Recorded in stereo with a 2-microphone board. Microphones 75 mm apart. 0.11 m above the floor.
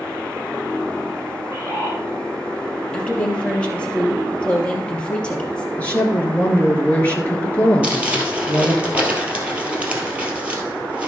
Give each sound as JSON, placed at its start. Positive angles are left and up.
{"t": 1.4, "sound": "a bird", "side_deg": -30, "distance_m": 3.5}
{"t": 2.9, "sound": "a woman speaking", "side_deg": 15, "distance_m": 3.0}
{"t": 5.8, "sound": "a woman speaking", "side_deg": 20, "distance_m": 2.0}
{"t": 7.8, "sound": "crumpling", "side_deg": -15, "distance_m": 2.5}